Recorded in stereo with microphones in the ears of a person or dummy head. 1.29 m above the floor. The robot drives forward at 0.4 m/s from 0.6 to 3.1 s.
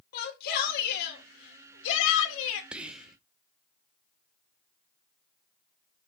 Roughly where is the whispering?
Centre.